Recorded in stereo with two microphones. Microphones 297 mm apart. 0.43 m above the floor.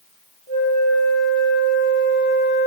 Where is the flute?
40° left (ahead or behind), 7 m.